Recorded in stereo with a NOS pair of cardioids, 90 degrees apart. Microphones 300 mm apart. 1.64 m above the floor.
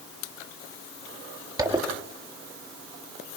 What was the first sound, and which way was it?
A zipper, 15° right.